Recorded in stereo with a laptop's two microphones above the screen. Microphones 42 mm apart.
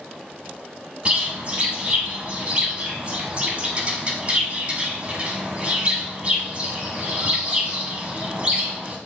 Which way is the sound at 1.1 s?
30° right (ahead or behind).